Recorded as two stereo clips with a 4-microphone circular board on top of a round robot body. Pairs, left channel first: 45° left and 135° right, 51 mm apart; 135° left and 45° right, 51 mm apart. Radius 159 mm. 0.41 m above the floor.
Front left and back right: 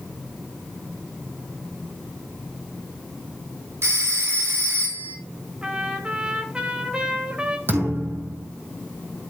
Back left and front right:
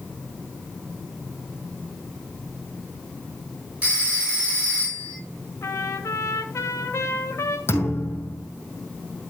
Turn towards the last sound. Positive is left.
turn(degrees=180)